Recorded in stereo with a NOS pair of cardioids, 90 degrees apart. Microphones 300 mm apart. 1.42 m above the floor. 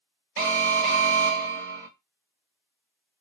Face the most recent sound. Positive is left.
turn(degrees=-45)